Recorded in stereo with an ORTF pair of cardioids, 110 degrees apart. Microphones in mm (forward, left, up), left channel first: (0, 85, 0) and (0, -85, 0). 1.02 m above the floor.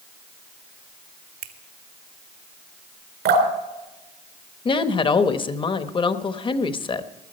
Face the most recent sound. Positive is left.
turn(degrees=30)